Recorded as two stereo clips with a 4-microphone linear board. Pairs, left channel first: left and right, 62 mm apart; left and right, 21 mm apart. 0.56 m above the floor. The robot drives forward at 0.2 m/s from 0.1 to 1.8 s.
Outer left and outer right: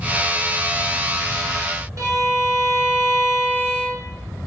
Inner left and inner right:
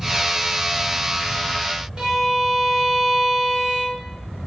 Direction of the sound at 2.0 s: 55° right (ahead or behind).